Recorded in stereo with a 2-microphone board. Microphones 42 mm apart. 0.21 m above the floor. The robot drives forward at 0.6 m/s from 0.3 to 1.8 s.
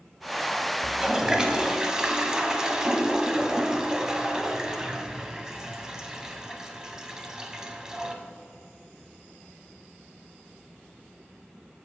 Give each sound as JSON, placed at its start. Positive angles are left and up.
{"t": 0.8, "sound": "a toilet flushing", "side_deg": -20, "distance_m": 0.8}